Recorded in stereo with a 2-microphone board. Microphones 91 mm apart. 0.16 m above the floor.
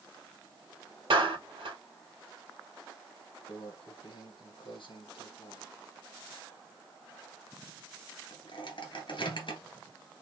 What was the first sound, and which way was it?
A clap, 70° right (ahead or behind).